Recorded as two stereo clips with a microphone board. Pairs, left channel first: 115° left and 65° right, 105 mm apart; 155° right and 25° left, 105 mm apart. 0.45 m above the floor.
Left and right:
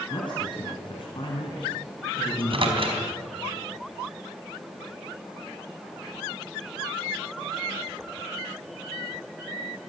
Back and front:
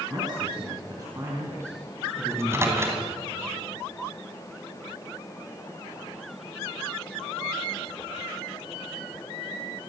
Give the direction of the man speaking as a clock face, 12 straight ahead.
10 o'clock.